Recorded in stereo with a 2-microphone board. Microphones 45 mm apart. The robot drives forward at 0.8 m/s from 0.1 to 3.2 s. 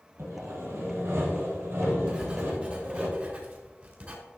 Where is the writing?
25° right (ahead or behind), 2.5 m; by 4.2 s 40° right (ahead or behind), 1.9 m.